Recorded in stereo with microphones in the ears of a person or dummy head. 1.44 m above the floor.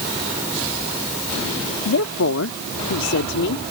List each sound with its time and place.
1.9 s a woman speaking: 80° left; by 3.6 s 75° left (ahead or behind)